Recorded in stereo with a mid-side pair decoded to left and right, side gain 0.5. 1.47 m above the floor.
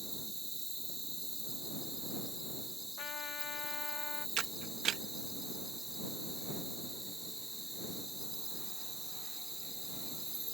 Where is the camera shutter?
60° right.